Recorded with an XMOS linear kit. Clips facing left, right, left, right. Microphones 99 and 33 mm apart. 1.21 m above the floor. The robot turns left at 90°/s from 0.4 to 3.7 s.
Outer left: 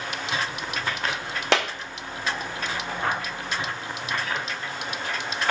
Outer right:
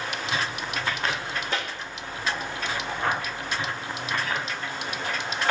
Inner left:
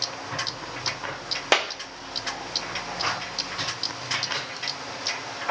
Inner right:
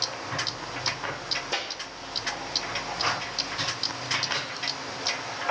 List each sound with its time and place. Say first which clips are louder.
1.5 s a clap: outer left 10 dB, inner left 12 dB; 80° left, 1.5 m; by 1.7 s 70° left (ahead or behind), 1.5 m